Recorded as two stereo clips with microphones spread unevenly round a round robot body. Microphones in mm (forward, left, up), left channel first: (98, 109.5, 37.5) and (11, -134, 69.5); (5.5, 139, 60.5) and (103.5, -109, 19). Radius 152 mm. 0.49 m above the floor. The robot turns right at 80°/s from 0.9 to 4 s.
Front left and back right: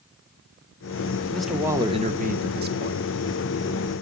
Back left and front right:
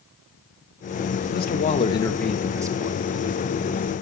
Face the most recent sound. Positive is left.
turn(degrees=-5)